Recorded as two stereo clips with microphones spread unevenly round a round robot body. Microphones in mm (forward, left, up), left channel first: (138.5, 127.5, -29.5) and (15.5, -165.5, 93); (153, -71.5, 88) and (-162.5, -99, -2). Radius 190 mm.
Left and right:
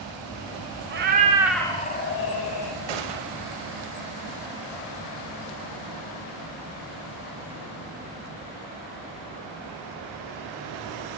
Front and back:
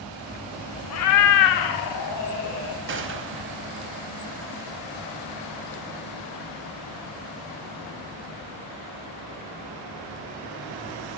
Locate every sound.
0.9 s a cat meowing: 45° right, 0.6 m; by 2.8 s 70° left, 0.9 m
2.9 s a gunshot: 120° right, 0.6 m